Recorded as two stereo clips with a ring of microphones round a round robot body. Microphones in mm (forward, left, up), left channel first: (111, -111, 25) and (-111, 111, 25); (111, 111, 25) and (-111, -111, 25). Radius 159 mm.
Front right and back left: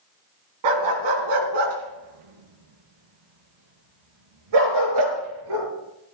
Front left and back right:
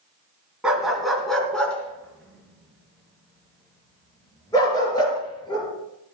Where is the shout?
I don't hear a shout.